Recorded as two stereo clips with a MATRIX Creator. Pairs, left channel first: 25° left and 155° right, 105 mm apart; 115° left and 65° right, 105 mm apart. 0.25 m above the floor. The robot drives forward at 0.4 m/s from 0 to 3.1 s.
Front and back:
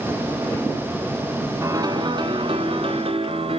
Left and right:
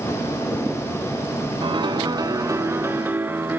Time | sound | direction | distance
1.6 | a piano | 100° right | 0.7 m